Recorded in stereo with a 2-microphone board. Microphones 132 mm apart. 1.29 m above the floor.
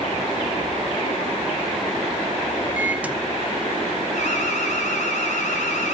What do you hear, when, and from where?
2.8 s a microwave: 10° right (ahead or behind), 0.8 m
4.1 s an alarm: 65° left (ahead or behind), 4 m